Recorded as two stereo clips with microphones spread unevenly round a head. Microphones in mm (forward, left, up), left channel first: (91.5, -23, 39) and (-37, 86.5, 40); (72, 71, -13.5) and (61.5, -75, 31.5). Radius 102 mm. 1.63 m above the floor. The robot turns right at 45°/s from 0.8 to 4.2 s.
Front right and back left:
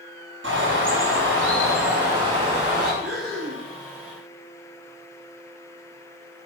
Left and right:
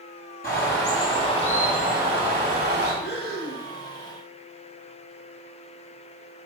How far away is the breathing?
About 2.5 m.